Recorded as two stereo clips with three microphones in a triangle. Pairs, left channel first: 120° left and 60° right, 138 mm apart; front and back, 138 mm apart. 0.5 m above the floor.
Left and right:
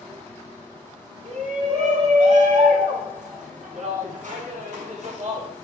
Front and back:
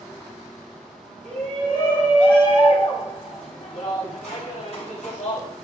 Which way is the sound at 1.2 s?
75° right.